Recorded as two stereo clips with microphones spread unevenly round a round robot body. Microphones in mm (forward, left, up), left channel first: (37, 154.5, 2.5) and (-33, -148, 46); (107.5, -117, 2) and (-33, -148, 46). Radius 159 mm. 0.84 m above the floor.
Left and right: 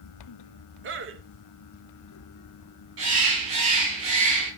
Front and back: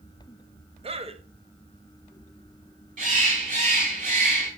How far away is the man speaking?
About 0.9 m.